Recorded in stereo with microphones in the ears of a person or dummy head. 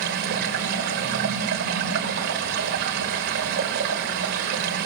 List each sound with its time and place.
0.0 s running water: 55° right (ahead or behind), 3 m